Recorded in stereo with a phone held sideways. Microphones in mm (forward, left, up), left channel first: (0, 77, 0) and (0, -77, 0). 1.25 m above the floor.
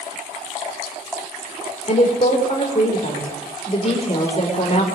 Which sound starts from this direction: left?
A woman speaking, at 1.9 s.